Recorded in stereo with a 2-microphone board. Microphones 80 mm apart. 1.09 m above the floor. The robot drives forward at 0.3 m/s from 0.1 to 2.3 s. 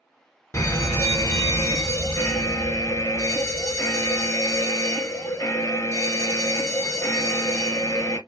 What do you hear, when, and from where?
0.5 s a fire alarm: 40° left (ahead or behind), 1.4 m